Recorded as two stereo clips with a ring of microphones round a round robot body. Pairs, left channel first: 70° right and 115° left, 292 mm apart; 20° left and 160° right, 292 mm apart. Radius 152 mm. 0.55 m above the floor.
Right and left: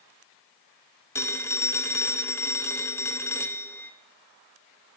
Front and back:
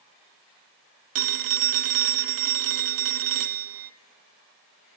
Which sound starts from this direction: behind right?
A phone ringing, at 1.1 s.